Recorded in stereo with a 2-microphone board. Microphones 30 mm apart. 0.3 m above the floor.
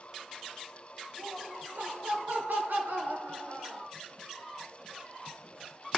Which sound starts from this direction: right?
Laughter, at 1.2 s.